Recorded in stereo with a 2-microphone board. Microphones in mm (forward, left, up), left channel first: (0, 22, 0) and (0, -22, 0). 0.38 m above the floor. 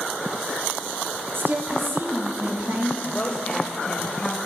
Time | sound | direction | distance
1.3 | a woman speaking | 60° right (ahead or behind) | 2.5 m
3.0 | a woman speaking | 25° left (ahead or behind) | 1.6 m